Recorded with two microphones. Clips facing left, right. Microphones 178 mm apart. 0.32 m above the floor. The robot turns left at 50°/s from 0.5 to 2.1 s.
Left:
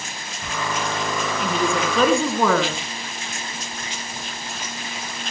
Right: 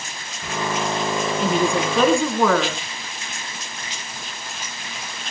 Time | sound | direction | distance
1.4 | a woman speaking | 145° right | 4 m